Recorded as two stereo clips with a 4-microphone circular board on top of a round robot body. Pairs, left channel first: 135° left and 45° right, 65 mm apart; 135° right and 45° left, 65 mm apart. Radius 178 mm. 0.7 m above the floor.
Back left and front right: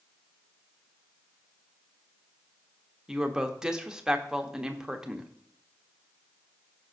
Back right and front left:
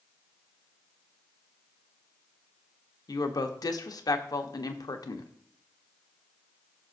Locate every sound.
3.1 s a woman speaking: 125° right, 1.1 m